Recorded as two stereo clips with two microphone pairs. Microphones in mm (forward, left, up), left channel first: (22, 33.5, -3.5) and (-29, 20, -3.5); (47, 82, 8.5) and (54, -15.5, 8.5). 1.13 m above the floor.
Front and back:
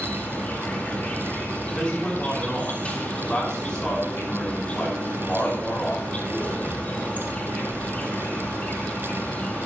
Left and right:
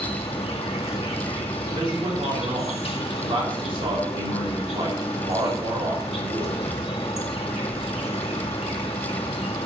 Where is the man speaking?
60° right, 5 m.